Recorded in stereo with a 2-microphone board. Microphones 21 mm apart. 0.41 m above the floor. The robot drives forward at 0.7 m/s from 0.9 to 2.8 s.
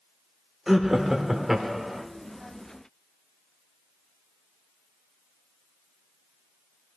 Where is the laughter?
15° right (ahead or behind), 0.9 m.